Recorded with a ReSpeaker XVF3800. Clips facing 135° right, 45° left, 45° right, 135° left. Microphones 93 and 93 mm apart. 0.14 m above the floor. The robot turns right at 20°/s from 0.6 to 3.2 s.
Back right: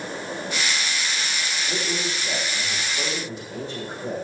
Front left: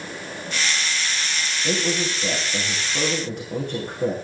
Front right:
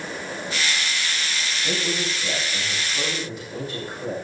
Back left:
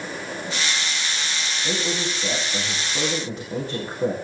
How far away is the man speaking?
About 6.5 m.